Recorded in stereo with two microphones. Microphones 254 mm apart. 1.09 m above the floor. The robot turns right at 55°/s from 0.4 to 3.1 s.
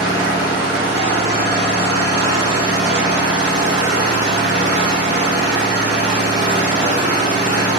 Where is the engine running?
160° left, 1.2 m; by 7.8 s 50° right, 1.2 m.